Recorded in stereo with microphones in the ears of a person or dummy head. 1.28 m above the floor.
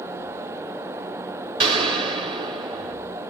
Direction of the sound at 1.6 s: 20° right (ahead or behind).